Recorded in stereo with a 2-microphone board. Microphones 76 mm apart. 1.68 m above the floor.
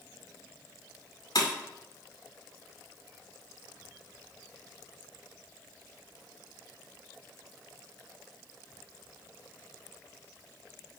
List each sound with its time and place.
1.4 s breaking glass: 55° left (ahead or behind), 2 m